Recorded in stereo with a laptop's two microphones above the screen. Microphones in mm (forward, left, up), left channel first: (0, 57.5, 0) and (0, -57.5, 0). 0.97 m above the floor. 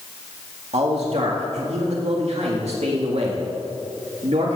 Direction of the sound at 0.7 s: 70° right (ahead or behind).